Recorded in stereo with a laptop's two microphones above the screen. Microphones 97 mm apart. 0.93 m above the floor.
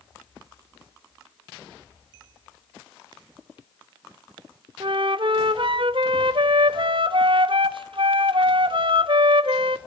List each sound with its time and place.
4.8 s a flute: 60° right (ahead or behind), 0.7 m